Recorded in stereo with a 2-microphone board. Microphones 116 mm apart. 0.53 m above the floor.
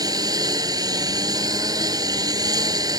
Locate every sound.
0.0 s a lawn mower: 35° right (ahead or behind)